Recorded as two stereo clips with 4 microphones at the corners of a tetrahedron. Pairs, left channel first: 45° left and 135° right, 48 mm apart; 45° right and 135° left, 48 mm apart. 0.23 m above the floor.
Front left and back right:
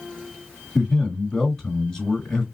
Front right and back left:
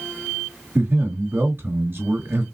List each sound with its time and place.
0.8 s a man speaking: 120° left, 2.5 m